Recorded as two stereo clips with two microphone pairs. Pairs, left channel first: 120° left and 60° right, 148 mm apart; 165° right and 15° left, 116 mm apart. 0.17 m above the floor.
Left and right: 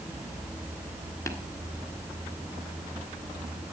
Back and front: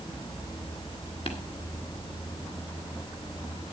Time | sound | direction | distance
1.3 | tapping | straight behind | 1.8 m